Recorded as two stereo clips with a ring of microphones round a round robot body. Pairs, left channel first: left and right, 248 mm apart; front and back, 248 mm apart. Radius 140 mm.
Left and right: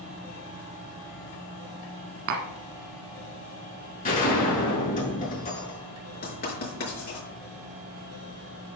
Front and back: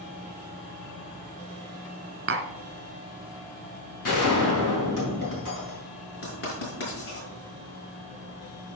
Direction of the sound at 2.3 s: 135° right.